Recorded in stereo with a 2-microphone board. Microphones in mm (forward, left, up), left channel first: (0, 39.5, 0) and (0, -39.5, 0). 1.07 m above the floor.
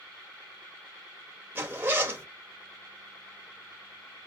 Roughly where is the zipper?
Right.